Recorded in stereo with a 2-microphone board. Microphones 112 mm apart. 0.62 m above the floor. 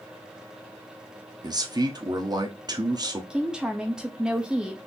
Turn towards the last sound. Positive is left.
turn(degrees=-5)  # may be behind; listen again after turning